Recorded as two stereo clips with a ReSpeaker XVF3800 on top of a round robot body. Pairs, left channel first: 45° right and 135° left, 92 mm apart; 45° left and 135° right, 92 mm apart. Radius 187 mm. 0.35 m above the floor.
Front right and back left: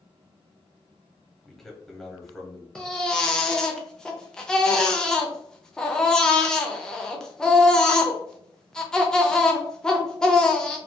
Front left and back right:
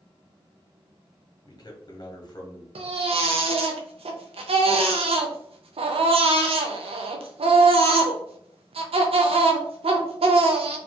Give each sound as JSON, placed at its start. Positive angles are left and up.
{"t": 1.4, "sound": "a man speaking", "azimuth_deg": 40, "distance_m": 1.3}
{"t": 2.8, "sound": "a baby crying", "azimuth_deg": -125, "distance_m": 0.5}